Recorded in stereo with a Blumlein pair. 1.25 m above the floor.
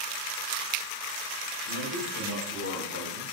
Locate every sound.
1.7 s a man speaking: 65° left, 1.8 m; by 3.2 s 80° left, 3 m